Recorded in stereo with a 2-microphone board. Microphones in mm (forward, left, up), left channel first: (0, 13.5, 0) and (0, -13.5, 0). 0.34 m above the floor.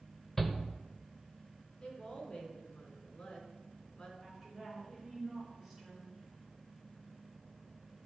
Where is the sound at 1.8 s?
40° left (ahead or behind), 3 m.